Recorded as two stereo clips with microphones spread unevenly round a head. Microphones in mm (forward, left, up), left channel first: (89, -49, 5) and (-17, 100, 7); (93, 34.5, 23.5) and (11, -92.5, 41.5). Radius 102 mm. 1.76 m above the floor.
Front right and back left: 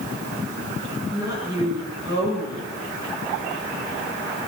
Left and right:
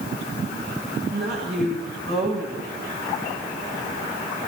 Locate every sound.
1.1 s a woman speaking: 160° right, 8.5 m